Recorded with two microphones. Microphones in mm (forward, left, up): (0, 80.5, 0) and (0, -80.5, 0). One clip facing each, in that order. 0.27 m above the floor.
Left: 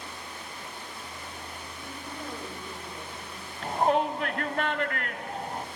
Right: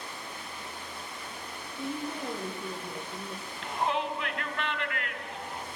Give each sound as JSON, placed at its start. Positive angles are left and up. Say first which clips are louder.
{"t": 1.8, "sound": "a woman speaking", "louder": "right 8 dB", "side_deg": -80, "distance_m": 6.5}
{"t": 3.6, "sound": "a shout", "louder": "left 6 dB", "side_deg": 45, "distance_m": 1.6}